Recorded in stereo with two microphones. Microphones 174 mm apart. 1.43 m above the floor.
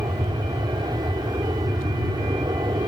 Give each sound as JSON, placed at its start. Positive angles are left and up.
{"t": 0.0, "sound": "an aircraft", "side_deg": -25}